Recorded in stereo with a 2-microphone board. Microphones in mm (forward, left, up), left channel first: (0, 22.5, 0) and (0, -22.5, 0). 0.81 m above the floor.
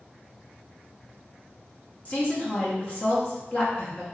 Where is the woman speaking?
40° left (ahead or behind), 1.2 m.